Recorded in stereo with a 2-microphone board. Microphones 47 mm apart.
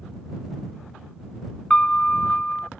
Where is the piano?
25° left (ahead or behind).